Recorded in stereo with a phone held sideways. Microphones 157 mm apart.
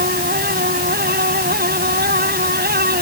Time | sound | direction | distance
0.0 | a fan | 85° right | ?